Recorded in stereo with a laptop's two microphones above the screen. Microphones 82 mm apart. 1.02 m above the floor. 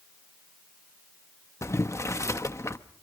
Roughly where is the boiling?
Left.